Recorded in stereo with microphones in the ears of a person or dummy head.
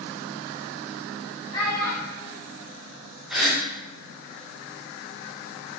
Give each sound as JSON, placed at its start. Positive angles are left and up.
{"t": 1.5, "sound": "a child speaking", "side_deg": 15, "distance_m": 1.6}
{"t": 3.3, "sound": "a gasp", "side_deg": -10, "distance_m": 0.6}